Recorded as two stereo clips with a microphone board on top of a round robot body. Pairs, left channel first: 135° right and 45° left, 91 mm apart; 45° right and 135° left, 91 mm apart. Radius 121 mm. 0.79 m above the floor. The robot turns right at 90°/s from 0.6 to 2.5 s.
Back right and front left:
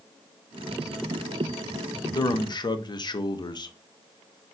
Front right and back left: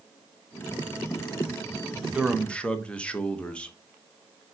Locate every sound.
2.1 s a man speaking: 150° right, 0.7 m; by 3.8 s 120° right, 0.7 m